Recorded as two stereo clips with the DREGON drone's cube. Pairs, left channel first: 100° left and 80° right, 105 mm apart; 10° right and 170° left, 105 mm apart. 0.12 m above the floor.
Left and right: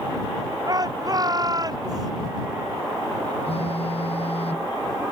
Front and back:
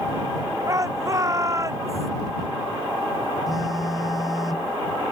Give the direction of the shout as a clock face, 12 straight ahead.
4 o'clock.